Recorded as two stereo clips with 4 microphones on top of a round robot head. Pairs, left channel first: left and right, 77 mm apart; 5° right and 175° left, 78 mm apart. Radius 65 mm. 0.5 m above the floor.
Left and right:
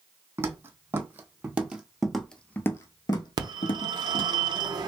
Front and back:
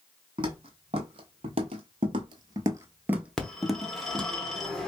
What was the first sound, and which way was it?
Footsteps, 145° right.